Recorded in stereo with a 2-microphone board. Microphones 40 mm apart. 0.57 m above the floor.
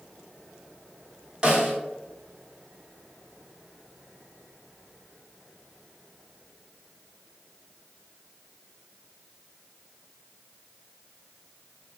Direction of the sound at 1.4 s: 25° right (ahead or behind).